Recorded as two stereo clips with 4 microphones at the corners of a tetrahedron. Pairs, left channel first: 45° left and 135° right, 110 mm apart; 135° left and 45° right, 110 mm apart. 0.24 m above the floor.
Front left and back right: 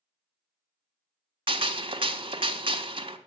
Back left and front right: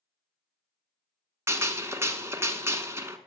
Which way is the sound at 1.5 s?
110° right.